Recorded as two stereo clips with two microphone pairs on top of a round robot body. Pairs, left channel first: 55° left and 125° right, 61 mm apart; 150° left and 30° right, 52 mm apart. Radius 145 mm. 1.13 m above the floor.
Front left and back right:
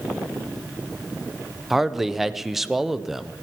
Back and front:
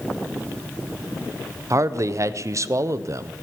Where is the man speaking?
35° right, 0.7 m.